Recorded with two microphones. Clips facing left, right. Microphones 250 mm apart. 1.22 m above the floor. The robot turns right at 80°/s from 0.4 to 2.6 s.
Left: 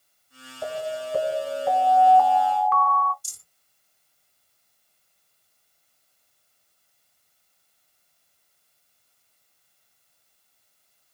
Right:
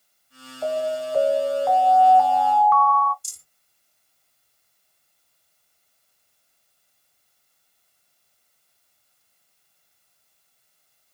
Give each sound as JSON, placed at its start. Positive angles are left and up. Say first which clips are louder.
{"t": 0.6, "sound": "an alarm", "louder": "right 5 dB", "azimuth_deg": 80, "distance_m": 1.2}
{"t": 3.2, "sound": "a rattle", "louder": "even", "side_deg": -25, "distance_m": 1.5}